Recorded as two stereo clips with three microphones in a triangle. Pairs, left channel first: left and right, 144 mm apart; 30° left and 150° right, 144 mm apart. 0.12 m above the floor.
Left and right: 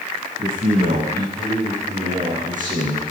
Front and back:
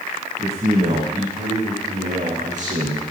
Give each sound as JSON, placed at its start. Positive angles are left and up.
{"t": 0.4, "sound": "a man speaking", "azimuth_deg": -105, "distance_m": 7.5}